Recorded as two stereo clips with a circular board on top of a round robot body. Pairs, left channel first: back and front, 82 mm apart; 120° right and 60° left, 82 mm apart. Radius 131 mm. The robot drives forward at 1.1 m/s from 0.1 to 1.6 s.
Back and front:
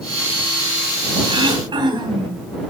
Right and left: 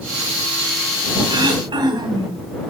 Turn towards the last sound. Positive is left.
turn(degrees=30)